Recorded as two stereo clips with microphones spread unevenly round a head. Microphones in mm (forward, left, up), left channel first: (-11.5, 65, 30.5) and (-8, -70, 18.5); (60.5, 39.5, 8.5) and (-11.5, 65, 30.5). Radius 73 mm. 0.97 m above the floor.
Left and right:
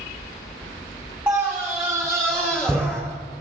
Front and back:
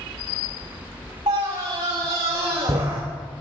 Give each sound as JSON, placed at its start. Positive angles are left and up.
{"t": 1.3, "sound": "a scream", "azimuth_deg": -165, "distance_m": 3.0}